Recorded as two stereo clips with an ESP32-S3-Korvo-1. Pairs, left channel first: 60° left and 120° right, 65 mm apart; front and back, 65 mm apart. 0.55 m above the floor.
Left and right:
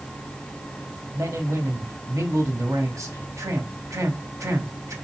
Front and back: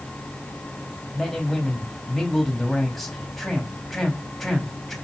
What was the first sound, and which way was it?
A man speaking, 85° right.